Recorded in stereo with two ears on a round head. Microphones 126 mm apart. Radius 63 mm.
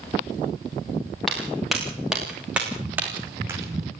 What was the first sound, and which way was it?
Footsteps, centre (ahead or behind).